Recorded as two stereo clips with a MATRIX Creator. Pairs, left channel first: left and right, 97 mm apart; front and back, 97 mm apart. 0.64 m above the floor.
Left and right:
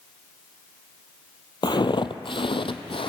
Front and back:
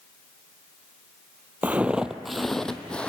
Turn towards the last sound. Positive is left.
turn(degrees=80)